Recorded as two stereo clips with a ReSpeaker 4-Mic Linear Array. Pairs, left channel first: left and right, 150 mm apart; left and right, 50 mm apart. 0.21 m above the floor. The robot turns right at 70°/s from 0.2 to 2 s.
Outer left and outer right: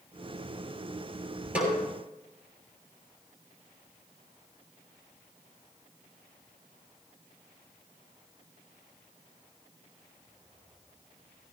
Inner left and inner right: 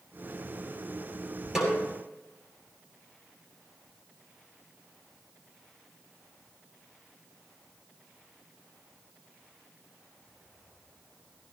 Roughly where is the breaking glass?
I don't hear breaking glass.